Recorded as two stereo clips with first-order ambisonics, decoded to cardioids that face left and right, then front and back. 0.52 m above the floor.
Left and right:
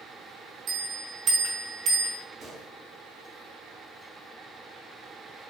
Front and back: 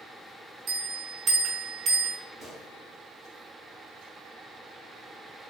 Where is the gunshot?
145° right, 1.2 m.